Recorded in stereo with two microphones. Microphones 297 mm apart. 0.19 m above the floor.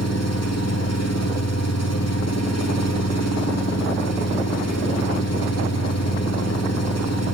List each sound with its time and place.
0.0 s an engine running: 65° left (ahead or behind), 5.5 m